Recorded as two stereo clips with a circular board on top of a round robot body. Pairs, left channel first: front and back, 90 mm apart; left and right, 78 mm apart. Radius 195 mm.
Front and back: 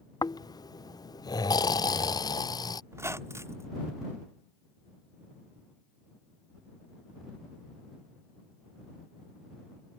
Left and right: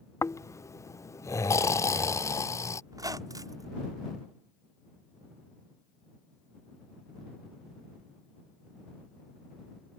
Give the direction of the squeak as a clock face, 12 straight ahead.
4 o'clock.